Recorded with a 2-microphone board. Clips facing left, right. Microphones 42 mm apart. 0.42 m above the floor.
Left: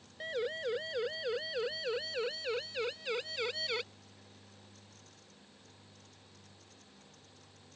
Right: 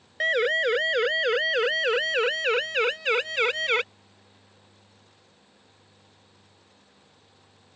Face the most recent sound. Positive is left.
turn(degrees=-60)  # may be behind; listen again after turning